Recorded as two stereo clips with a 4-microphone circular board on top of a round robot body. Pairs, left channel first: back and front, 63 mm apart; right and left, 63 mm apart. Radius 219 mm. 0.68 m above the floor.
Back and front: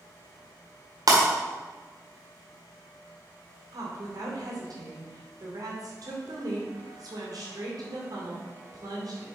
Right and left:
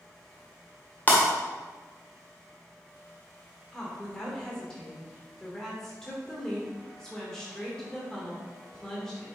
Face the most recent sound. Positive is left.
turn(degrees=-10)